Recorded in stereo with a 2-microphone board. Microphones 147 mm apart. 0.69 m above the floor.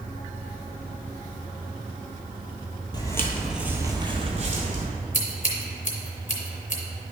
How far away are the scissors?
About 1.5 m.